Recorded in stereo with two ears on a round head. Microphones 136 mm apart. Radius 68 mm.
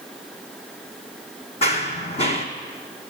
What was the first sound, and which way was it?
Running footsteps, 45° left (ahead or behind).